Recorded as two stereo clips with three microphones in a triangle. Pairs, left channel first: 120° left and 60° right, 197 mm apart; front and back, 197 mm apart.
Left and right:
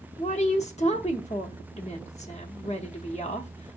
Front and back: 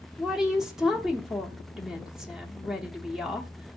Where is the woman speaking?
95° left, 0.8 m.